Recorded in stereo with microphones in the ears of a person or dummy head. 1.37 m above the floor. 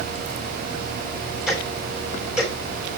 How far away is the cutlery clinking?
No cutlery clinking in this recording.